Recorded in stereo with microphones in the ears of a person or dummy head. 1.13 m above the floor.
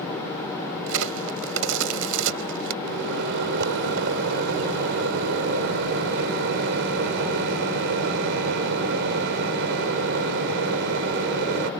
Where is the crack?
70° right (ahead or behind).